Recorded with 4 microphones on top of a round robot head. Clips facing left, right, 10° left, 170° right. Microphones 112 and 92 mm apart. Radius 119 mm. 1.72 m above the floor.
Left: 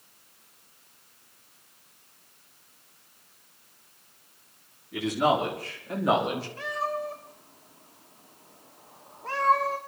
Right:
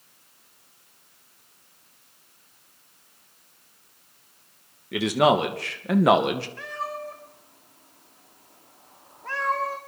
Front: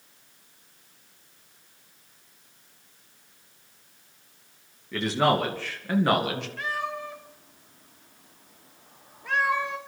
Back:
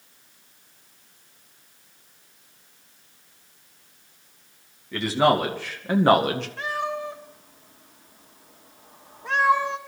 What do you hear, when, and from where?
4.9 s a man speaking: 85° right, 2.5 m; by 6.5 s 120° right, 1.8 m
6.6 s a cat meowing: 150° left, 1.3 m